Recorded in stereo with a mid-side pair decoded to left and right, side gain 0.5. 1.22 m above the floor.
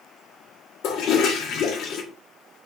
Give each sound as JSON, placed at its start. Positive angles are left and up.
{"t": 0.8, "sound": "a toilet flushing", "azimuth_deg": 65, "distance_m": 1.4}